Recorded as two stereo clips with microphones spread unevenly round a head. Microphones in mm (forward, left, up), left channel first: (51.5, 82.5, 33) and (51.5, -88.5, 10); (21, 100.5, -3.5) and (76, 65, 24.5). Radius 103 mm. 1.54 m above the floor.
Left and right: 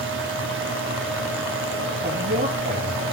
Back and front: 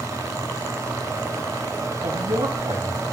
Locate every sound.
0.0 s a fan: 90° right, 2.5 m
2.0 s a man speaking: 50° right, 3.5 m